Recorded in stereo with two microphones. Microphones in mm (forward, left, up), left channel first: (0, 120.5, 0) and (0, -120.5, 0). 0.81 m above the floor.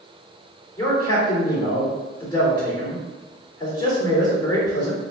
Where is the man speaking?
15° left (ahead or behind), 2.0 m.